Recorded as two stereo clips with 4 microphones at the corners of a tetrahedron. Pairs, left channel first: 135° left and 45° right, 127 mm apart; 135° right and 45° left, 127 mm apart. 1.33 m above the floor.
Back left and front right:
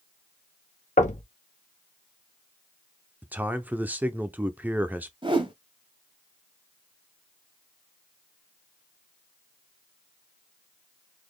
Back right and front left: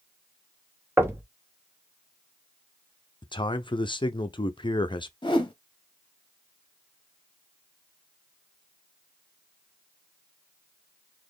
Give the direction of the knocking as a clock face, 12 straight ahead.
8 o'clock.